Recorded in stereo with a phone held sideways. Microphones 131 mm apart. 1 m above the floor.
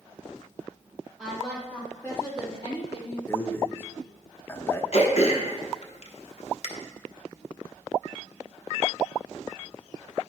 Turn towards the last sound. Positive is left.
turn(degrees=55)  # may be behind; listen again after turning